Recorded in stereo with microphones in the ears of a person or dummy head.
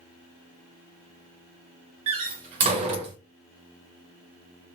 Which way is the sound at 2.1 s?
40° right (ahead or behind).